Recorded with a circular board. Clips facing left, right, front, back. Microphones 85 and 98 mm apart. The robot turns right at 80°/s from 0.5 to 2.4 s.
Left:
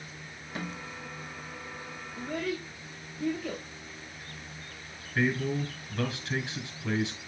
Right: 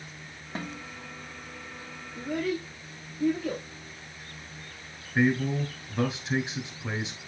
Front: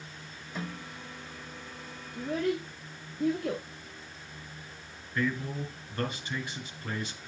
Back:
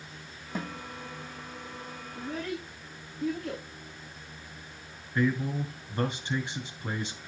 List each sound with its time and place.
0.6 s a snare drum: 145° right, 3 m; by 0.8 s 125° right, 3 m
2.1 s a child speaking: 25° right, 1.9 m; by 3.6 s 5° right, 1.9 m
5.2 s a man speaking: 140° right, 1.9 m